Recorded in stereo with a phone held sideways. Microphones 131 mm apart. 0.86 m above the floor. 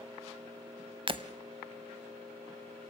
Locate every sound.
1.1 s breaking glass: 40° right (ahead or behind), 0.9 m